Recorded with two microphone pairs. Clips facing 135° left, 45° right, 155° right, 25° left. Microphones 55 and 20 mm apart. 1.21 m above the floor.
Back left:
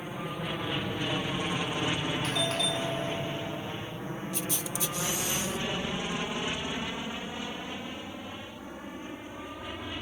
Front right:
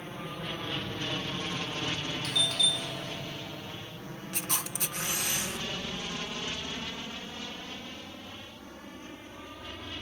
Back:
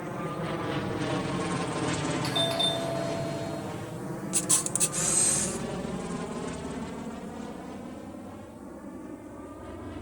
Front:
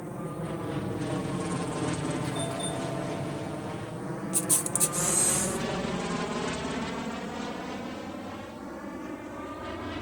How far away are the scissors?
No scissors in this recording.